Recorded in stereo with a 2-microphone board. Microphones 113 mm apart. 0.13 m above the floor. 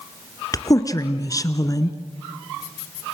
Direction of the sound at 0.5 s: 30° left (ahead or behind).